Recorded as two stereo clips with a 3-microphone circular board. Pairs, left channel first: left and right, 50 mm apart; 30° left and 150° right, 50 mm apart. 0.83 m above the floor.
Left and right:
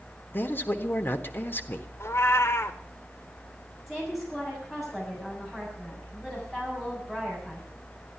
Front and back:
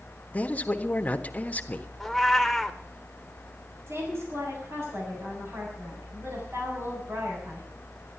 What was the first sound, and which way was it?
A man speaking, 75° left.